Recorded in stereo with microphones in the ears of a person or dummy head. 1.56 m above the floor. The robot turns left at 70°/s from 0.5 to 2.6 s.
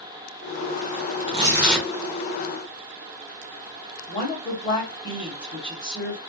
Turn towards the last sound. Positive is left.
turn(degrees=35)  # may be behind; listen again after turning